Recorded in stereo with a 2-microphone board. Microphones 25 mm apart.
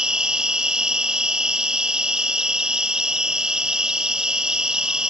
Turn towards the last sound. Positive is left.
turn(degrees=-35)  # may be behind; listen again after turning